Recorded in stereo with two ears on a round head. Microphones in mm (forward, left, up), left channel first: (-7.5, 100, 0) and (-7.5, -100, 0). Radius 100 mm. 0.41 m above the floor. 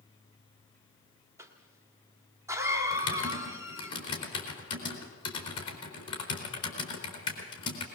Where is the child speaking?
No child speaking in this recording.